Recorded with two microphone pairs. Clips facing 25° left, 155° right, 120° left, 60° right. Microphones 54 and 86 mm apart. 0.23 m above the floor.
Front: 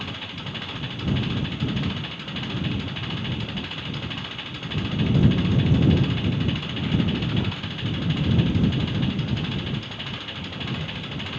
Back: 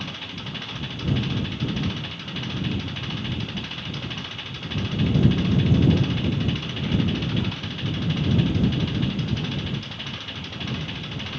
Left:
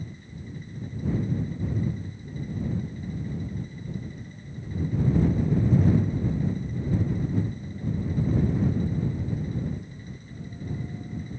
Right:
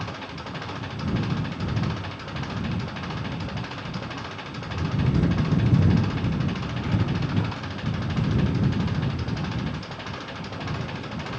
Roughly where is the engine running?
Ahead right.